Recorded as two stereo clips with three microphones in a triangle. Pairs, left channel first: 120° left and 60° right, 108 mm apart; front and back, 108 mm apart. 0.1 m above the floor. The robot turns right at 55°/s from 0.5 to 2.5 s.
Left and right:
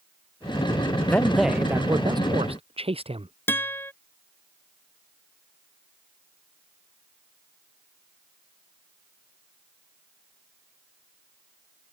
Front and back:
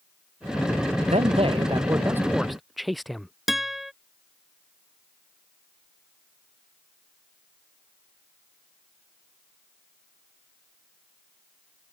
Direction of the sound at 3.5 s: 95° left.